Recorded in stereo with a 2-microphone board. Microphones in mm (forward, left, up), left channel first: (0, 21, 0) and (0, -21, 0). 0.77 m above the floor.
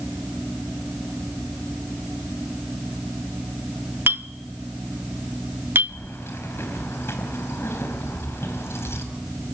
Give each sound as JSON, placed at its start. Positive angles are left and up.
{"t": 4.1, "sound": "a clink", "side_deg": -60, "distance_m": 0.7}
{"t": 5.9, "sound": "keys jangling", "side_deg": 80, "distance_m": 3.5}